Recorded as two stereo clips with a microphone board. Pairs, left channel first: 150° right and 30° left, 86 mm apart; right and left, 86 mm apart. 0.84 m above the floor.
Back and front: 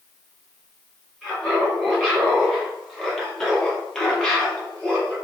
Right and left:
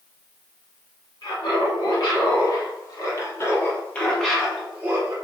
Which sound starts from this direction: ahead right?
Laughter, at 1.2 s.